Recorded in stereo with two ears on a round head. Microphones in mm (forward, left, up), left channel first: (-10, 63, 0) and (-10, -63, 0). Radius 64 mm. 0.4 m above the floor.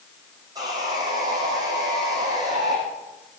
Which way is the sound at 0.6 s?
30° right (ahead or behind).